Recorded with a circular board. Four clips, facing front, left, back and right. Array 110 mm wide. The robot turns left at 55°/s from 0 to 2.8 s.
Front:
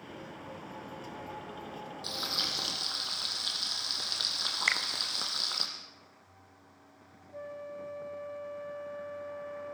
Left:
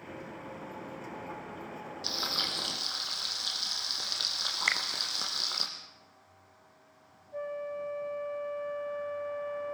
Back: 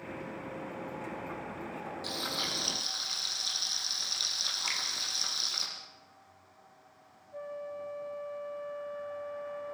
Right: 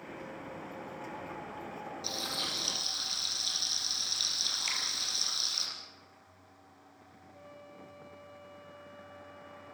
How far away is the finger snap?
About 2.5 m.